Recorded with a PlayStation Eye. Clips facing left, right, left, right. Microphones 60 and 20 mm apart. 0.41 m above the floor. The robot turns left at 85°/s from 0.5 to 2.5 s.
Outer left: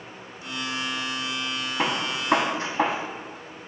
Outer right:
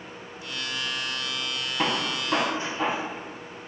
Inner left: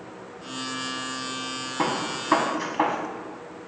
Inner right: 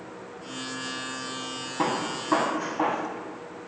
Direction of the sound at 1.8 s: 15° left (ahead or behind).